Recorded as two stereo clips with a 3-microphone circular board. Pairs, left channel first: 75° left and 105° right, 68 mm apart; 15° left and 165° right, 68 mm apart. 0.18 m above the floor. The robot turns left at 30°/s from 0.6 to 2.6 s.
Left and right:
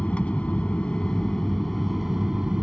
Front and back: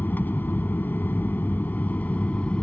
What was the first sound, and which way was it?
An aircraft, 25° left.